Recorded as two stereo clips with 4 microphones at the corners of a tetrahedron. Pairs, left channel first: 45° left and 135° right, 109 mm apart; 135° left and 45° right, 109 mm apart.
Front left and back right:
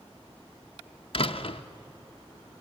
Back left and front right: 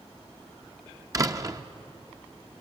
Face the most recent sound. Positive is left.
turn(degrees=10)